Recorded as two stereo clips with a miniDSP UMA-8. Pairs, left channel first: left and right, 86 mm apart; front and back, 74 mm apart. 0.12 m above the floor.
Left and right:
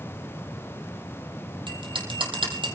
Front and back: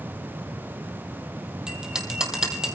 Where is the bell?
100° right, 3.5 m.